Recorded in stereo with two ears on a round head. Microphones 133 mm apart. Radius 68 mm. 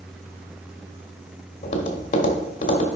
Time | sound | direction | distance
1.6 | tapping | 50° left (ahead or behind) | 1.3 m